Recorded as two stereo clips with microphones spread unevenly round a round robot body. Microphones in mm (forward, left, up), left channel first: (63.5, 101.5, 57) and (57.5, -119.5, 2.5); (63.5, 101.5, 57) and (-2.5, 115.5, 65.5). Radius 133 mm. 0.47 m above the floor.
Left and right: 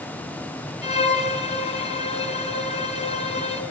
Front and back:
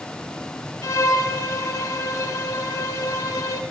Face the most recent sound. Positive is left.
turn(degrees=25)